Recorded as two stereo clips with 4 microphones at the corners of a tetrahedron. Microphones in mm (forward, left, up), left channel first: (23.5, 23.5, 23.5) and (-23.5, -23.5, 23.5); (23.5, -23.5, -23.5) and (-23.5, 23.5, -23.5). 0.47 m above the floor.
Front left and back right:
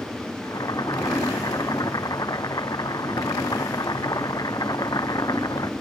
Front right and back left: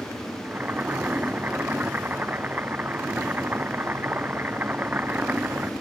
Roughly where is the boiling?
Left.